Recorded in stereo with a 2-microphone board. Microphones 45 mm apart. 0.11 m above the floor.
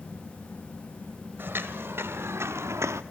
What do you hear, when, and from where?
1.4 s footsteps: 50° right (ahead or behind), 2 m; by 3.0 s 85° right, 0.9 m